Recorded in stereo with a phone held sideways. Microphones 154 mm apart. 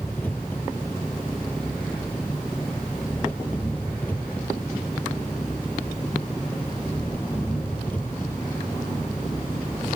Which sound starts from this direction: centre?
An engine running, at 0.0 s.